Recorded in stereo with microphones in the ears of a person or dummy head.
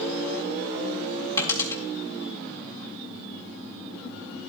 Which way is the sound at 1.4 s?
20° left (ahead or behind).